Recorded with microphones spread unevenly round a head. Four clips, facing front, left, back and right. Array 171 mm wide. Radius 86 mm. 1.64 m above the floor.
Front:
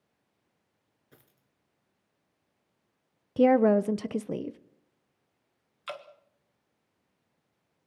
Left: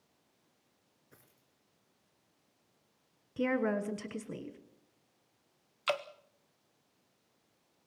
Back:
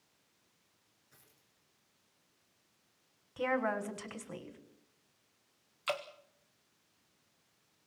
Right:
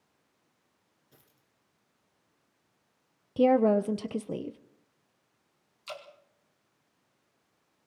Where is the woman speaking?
35° right, 1.0 m.